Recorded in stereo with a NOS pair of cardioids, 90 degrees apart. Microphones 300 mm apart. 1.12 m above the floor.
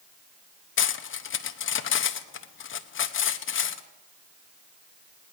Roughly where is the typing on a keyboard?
I don't hear typing on a keyboard.